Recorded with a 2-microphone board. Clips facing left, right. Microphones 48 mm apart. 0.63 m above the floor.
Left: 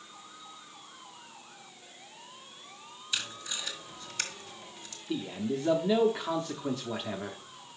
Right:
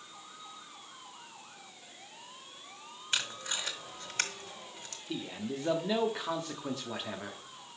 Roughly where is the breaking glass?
I don't hear breaking glass.